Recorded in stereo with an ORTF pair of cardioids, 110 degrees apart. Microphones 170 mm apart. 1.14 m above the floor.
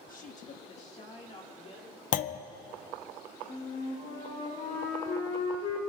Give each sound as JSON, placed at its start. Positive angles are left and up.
{"t": 0.1, "sound": "a woman speaking", "azimuth_deg": 55, "distance_m": 1.3}
{"t": 2.1, "sound": "a clunk", "azimuth_deg": 55, "distance_m": 0.5}
{"t": 3.5, "sound": "a flute", "azimuth_deg": 55, "distance_m": 6.0}